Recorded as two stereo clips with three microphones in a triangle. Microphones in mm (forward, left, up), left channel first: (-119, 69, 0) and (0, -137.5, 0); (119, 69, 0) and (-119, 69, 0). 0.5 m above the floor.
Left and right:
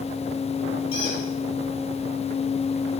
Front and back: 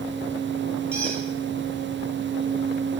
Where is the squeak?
85° right, 8.5 m.